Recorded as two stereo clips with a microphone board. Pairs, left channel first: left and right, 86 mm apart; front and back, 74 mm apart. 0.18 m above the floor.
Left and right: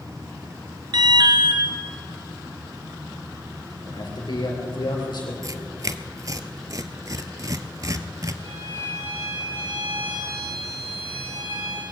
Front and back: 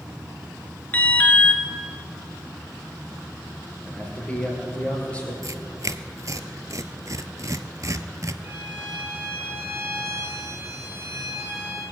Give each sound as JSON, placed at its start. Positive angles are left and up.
{"t": 0.9, "sound": "an alarm", "azimuth_deg": -65, "distance_m": 1.7}
{"t": 3.8, "sound": "a man speaking", "azimuth_deg": 70, "distance_m": 4.0}
{"t": 5.4, "sound": "tearing paper", "azimuth_deg": -135, "distance_m": 0.7}
{"t": 8.4, "sound": "a violin", "azimuth_deg": -120, "distance_m": 6.0}